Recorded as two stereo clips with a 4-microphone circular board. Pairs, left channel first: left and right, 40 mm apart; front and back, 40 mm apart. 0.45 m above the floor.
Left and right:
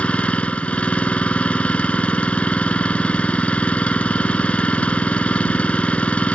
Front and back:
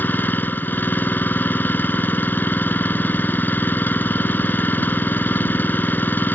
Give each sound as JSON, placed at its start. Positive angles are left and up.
{"t": 0.0, "sound": "an engine running", "azimuth_deg": 35}